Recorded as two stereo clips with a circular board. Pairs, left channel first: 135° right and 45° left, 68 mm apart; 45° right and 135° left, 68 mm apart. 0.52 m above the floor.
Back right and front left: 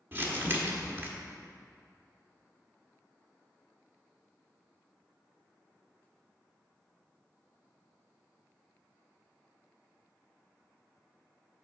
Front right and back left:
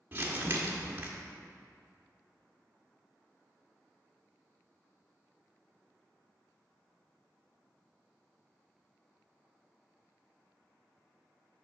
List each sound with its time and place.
0.1 s crumpling: 90° left, 1.0 m